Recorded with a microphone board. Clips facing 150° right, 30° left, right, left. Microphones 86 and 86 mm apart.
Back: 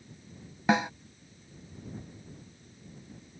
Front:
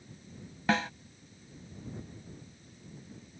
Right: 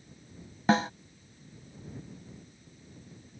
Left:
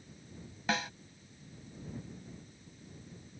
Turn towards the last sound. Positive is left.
turn(degrees=-90)